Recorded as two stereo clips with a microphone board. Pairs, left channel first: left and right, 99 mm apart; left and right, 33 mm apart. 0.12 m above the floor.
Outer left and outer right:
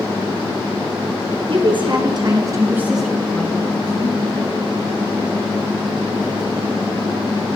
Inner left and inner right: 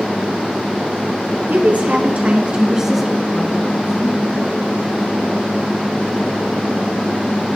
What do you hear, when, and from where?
1.5 s a woman speaking: 60° right (ahead or behind), 2.5 m; by 4.2 s 45° left (ahead or behind), 2 m